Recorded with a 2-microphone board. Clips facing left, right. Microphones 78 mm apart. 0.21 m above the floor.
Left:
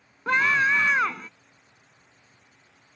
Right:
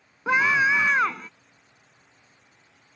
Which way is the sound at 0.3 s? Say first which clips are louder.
Right 1 dB; 10° right (ahead or behind).